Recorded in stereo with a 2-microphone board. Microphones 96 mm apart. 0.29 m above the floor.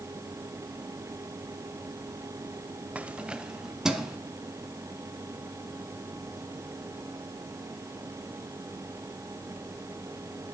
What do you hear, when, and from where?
3.0 s keys jangling: 15° right (ahead or behind), 0.6 m; by 4.2 s 5° right (ahead or behind), 1.9 m